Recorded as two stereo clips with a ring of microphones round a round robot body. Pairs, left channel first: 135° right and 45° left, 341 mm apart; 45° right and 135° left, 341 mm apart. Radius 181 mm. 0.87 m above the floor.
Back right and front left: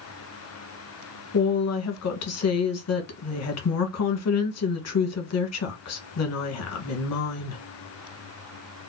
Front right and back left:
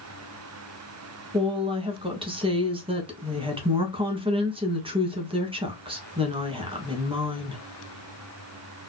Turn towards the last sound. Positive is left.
turn(degrees=-155)